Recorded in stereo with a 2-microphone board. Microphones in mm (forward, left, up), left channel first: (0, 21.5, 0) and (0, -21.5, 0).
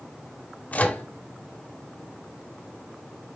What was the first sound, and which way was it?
A microwave, 40° left (ahead or behind).